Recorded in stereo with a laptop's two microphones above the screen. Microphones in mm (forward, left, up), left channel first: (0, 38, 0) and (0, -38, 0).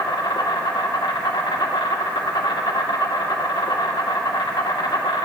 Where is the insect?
75° left (ahead or behind), 1.2 m.